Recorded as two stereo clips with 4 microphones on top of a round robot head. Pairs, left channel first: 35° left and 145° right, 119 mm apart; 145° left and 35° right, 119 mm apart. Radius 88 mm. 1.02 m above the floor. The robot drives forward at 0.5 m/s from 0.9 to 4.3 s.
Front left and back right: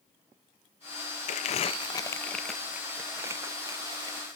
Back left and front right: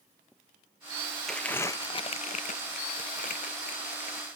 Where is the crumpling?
60° left, 0.6 m; by 4.3 s 160° left, 1.3 m.